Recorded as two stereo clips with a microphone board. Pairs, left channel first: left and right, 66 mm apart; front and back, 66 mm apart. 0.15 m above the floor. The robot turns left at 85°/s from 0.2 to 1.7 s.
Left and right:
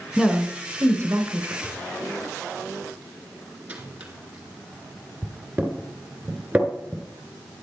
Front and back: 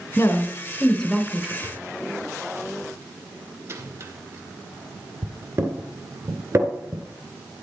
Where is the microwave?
150° right, 1.9 m; by 7.0 s 155° right, 1.9 m.